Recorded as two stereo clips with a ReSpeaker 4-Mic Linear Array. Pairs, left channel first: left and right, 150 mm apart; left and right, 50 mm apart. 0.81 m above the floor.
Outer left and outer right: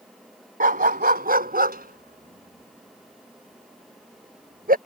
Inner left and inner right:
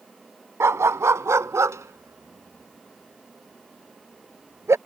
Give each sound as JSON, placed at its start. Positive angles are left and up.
{"t": 0.6, "sound": "a dog barking", "side_deg": -70}